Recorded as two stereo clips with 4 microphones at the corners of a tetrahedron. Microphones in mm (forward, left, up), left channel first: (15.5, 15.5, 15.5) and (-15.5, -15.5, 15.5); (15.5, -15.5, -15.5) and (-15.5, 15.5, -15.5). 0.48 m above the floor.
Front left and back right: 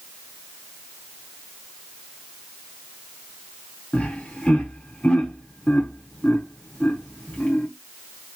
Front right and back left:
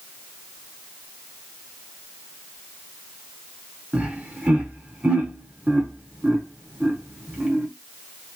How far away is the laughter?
About 1.0 m.